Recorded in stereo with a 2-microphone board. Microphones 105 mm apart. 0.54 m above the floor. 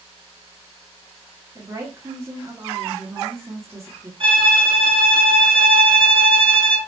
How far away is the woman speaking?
About 1.1 m.